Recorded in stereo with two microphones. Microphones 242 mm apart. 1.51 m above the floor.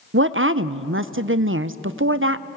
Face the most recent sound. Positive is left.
turn(degrees=-55)  # may be behind; listen again after turning